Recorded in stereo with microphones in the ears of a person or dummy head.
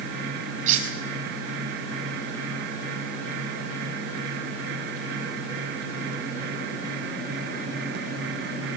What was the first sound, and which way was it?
Cutlery clinking, 35° right (ahead or behind).